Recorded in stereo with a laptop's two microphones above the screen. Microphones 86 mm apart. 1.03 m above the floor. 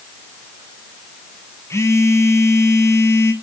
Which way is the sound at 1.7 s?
30° left (ahead or behind).